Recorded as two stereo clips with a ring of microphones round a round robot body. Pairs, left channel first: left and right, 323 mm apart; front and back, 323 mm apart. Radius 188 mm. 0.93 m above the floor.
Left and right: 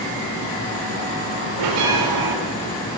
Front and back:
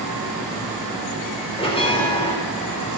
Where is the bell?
75° right, 4 m.